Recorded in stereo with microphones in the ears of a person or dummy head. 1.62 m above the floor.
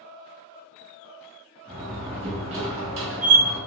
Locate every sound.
1.7 s a door slam: 30° right (ahead or behind), 1.2 m